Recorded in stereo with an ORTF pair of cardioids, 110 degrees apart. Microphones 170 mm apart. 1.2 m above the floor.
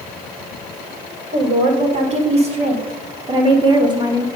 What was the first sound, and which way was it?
A woman speaking, 45° right.